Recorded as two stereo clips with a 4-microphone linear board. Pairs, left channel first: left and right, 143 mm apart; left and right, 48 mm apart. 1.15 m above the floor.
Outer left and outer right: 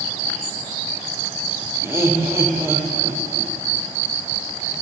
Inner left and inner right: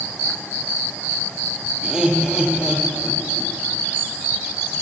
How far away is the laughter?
About 0.6 m.